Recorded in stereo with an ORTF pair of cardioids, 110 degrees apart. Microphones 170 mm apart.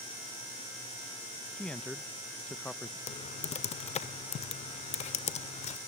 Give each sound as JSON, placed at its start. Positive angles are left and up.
{"t": 1.6, "sound": "a man speaking", "azimuth_deg": 5, "distance_m": 0.6}
{"t": 3.1, "sound": "typing on a keyboard", "azimuth_deg": 40, "distance_m": 1.6}